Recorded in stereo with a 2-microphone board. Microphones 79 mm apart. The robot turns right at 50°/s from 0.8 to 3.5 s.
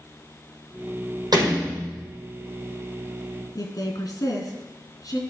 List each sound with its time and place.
1.3 s a door slam: 60° right, 6 m; by 2.1 s 25° right, 6 m
3.5 s a woman speaking: 60° left (ahead or behind), 3 m